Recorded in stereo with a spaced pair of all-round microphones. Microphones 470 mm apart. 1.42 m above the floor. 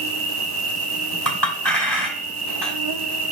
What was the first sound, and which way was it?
An insect, 50° right (ahead or behind).